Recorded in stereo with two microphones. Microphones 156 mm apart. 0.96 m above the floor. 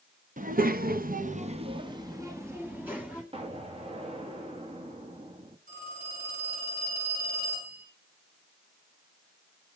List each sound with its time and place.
0.4 s a child speaking: 60° right (ahead or behind), 0.9 m; by 3.2 s 5° right (ahead or behind), 2 m
3.3 s an explosion: 40° right (ahead or behind), 1.3 m
5.7 s a phone ringing: 65° right (ahead or behind), 7.5 m